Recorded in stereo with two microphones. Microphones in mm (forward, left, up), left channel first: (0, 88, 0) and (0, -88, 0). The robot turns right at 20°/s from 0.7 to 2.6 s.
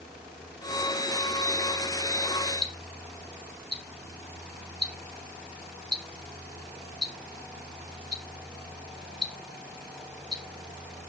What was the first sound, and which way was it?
Ticking, 20° right (ahead or behind).